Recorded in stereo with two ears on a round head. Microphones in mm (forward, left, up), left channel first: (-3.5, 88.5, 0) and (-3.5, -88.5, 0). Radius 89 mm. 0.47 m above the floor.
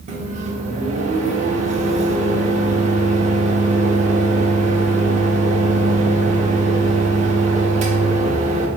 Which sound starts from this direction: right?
A microwave, at 0.1 s.